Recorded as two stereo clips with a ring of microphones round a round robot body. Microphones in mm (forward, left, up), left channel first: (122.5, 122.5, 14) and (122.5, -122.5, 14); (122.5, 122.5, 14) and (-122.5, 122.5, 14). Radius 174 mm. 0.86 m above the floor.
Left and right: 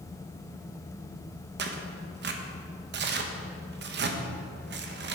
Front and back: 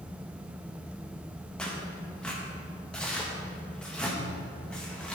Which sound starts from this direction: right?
Tearing paper, at 1.6 s.